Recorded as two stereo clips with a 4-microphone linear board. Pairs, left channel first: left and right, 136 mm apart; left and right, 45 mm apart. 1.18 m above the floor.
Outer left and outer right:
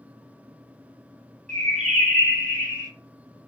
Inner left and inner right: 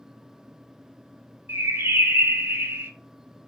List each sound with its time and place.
1.5 s a bird: 70° right (ahead or behind), 0.9 m